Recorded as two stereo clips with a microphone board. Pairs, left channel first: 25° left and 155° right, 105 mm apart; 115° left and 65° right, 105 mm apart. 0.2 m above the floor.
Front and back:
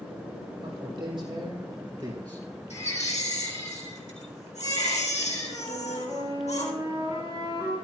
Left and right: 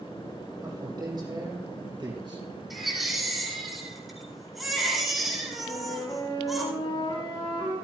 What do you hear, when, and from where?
0.6 s a man speaking: 120° right, 6.5 m; by 2.5 s 110° right, 4 m
2.7 s a baby crying: 20° left, 4 m
5.6 s a flute: 155° left, 6.5 m